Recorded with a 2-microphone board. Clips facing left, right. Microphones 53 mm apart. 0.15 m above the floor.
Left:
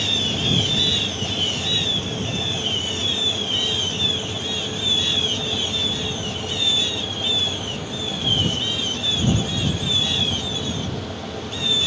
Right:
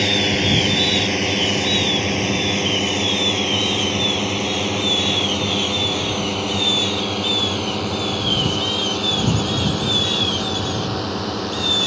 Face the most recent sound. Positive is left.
turn(degrees=-65)  # may be behind; listen again after turning